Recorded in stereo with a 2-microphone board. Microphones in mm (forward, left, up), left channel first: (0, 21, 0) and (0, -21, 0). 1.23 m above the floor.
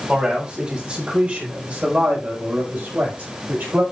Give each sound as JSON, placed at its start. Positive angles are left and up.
{"t": 0.1, "sound": "a man speaking", "side_deg": -20, "distance_m": 6.0}